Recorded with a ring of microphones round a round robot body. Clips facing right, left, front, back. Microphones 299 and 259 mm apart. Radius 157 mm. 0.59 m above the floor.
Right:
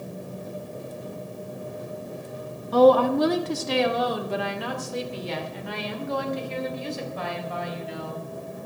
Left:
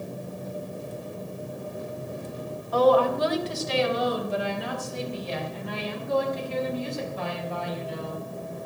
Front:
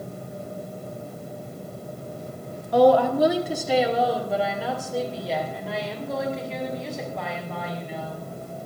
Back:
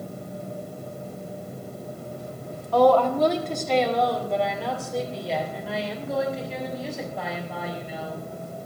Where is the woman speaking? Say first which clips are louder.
Right 4 dB, front 1 dB; 70° right, 1.6 m; by 8.2 s 95° right, 4.5 m.